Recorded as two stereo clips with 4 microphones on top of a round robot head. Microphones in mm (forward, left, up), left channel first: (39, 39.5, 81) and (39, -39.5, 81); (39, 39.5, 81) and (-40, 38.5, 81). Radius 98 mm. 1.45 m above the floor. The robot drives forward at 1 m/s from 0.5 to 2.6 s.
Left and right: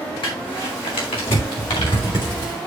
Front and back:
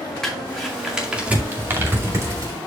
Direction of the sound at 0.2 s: 85° left.